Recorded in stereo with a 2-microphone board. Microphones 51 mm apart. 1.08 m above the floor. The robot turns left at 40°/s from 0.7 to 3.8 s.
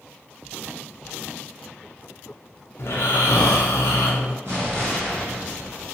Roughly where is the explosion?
Right.